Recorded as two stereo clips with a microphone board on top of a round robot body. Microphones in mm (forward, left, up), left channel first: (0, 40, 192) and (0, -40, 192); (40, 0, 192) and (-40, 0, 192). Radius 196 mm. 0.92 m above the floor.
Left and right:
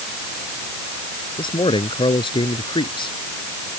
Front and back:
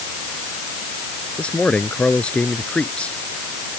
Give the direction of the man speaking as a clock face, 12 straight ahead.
9 o'clock.